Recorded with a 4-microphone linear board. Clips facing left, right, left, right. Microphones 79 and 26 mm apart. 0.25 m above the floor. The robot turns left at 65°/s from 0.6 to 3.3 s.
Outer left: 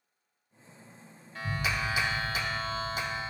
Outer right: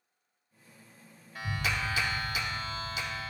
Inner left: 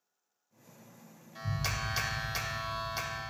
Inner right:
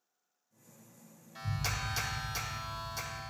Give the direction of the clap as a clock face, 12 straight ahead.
6 o'clock.